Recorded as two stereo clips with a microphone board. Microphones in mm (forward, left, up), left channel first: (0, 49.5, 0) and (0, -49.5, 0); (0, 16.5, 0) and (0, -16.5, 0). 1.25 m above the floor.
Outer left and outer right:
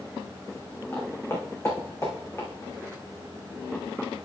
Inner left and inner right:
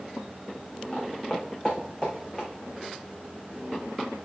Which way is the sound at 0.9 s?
30° left (ahead or behind).